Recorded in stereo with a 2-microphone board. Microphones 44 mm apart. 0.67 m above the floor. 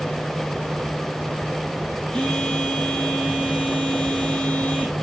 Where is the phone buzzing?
20° left (ahead or behind), 8 m.